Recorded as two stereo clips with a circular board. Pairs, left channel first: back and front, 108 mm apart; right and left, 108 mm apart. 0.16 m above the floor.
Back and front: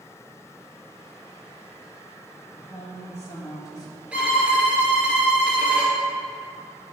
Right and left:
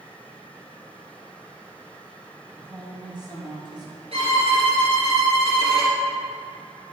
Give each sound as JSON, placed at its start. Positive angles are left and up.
{"t": 2.6, "sound": "a woman speaking", "azimuth_deg": 125, "distance_m": 2.5}
{"t": 4.1, "sound": "a violin", "azimuth_deg": 80, "distance_m": 2.0}